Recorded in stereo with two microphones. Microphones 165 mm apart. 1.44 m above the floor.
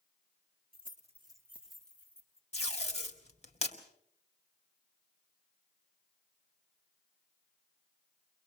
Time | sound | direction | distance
0.7 | keys jangling | 65° right (ahead or behind) | 1.1 m
2.5 | tape being pulled | 40° left (ahead or behind) | 2 m